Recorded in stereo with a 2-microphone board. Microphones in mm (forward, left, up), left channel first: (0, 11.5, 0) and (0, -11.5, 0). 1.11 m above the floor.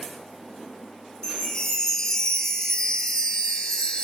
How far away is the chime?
About 0.7 m.